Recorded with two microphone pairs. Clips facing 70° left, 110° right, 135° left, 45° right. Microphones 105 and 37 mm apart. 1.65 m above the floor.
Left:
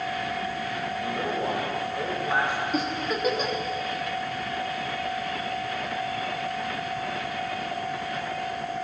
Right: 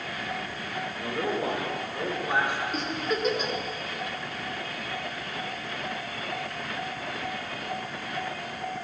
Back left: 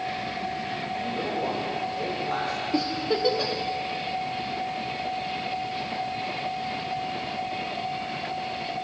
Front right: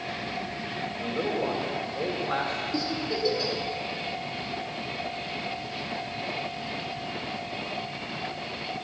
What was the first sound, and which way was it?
A man speaking, 100° right.